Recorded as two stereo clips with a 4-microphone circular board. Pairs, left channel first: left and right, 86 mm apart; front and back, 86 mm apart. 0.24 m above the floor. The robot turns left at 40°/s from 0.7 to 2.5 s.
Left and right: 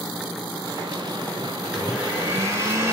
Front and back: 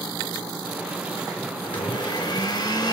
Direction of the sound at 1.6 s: 5° right.